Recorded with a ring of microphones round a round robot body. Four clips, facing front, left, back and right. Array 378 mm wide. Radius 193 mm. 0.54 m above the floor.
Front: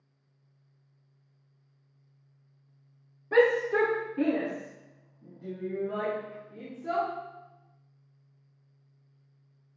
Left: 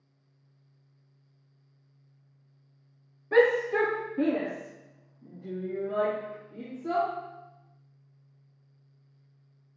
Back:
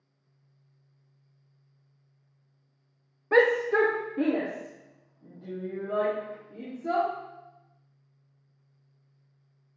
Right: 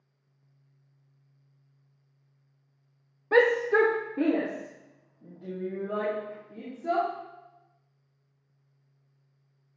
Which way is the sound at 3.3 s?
140° right.